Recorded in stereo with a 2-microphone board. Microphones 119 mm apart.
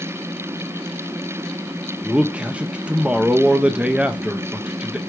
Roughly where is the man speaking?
Centre.